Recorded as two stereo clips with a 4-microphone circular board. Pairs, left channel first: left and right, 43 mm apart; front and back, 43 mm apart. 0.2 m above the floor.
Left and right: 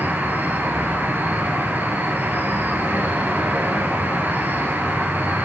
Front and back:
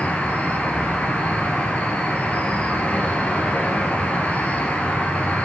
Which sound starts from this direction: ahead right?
An insect, at 0.0 s.